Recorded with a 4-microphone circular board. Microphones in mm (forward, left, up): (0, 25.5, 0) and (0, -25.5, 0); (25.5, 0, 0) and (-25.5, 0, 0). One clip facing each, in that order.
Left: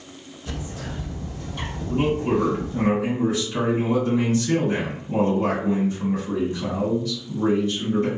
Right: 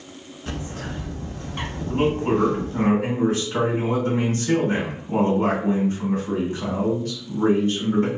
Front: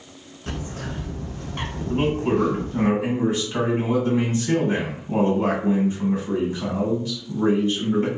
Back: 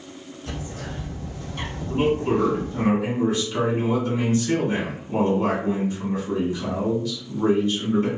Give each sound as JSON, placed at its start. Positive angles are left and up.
{"t": 0.5, "sound": "a bird", "azimuth_deg": -45, "distance_m": 0.7}
{"t": 1.9, "sound": "a man speaking", "azimuth_deg": -55, "distance_m": 1.7}